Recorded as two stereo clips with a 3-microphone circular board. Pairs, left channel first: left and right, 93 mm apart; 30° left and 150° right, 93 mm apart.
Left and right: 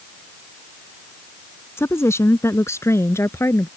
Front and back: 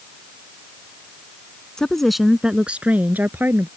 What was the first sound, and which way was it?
A woman speaking, 105° left.